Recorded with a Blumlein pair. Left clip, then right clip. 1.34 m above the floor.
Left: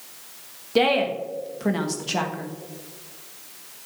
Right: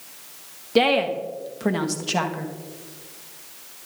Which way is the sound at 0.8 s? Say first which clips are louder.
Right 1 dB; 5° right.